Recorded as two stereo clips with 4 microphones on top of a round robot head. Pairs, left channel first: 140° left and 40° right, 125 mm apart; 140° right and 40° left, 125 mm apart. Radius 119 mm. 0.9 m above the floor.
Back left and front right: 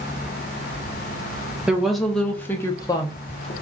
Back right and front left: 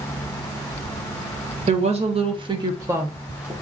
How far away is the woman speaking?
About 1.1 m.